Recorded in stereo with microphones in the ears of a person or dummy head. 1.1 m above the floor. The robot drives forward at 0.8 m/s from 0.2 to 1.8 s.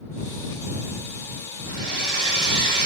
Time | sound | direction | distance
1.7 | a hair dryer | 60° right (ahead or behind) | 3 m